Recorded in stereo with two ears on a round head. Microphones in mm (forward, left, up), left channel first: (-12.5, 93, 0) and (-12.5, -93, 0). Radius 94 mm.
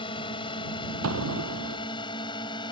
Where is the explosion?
80° right.